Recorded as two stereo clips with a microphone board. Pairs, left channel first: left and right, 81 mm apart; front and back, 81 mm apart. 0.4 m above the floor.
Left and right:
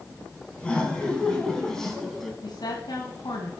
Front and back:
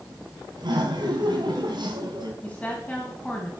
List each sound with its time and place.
0.6 s laughter: 165° left, 4 m; by 2.3 s 175° left, 3.5 m
2.4 s a woman speaking: 80° left, 3.5 m